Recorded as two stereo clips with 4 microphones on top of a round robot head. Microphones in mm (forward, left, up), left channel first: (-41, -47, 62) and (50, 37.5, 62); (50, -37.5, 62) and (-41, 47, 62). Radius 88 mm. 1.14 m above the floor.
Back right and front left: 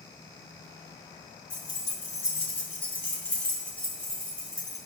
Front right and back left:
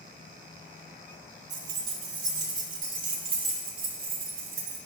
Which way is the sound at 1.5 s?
165° left.